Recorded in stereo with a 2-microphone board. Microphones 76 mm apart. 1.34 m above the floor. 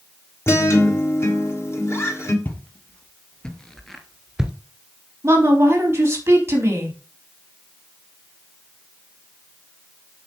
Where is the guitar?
40° left (ahead or behind), 2 m.